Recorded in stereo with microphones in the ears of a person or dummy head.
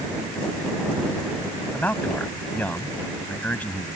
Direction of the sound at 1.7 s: 5° left (ahead or behind).